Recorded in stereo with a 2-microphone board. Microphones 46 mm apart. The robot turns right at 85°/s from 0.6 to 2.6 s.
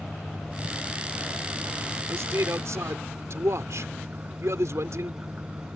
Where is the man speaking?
125° right; by 5.2 s 80° right.